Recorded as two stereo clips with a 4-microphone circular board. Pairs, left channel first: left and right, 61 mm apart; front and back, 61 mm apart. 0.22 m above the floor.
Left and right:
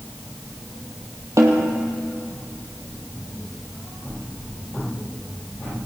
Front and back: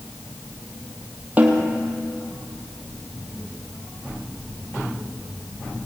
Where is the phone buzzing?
No phone buzzing in this recording.